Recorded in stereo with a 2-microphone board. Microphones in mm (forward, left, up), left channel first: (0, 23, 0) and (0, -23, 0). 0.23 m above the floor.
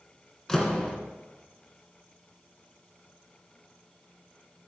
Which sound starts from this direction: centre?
A door slam, at 0.5 s.